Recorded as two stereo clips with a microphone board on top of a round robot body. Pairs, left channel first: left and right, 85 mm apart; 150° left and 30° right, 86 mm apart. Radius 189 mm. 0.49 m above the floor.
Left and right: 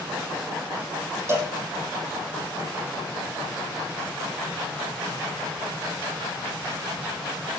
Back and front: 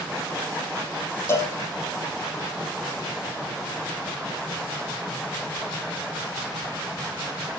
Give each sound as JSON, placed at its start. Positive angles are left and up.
{"t": 1.3, "sound": "a cowbell", "azimuth_deg": -150, "distance_m": 6.0}